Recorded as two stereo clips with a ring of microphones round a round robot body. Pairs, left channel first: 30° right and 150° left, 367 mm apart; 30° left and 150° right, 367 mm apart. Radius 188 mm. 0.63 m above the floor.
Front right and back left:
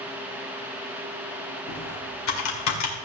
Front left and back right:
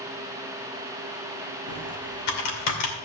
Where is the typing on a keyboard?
15° left, 2.5 m.